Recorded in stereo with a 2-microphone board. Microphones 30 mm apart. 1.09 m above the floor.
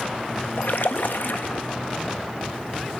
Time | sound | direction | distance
0.6 | a splash | 80° left | 1.0 m